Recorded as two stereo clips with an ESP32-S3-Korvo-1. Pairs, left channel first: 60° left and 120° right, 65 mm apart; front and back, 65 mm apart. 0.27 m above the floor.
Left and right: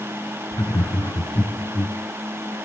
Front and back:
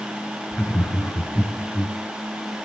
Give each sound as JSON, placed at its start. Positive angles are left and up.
{"t": 0.5, "sound": "laughter", "azimuth_deg": 55, "distance_m": 2.5}